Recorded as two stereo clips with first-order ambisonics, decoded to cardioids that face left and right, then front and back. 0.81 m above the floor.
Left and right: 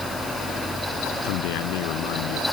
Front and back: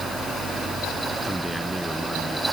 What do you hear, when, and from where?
1.2 s a man speaking: 90° left